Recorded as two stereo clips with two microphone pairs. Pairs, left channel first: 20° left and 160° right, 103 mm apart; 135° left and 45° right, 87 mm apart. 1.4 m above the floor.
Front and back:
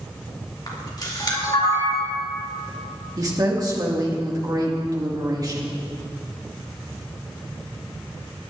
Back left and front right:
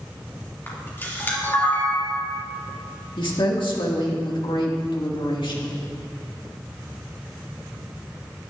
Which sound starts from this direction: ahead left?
A camera shutter, at 0.7 s.